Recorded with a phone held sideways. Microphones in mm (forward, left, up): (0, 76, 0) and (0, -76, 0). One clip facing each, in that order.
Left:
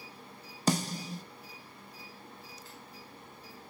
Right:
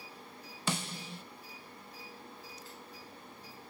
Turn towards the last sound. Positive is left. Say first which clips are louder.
# left 7 dB
turn(degrees=40)  # may be behind; listen again after turning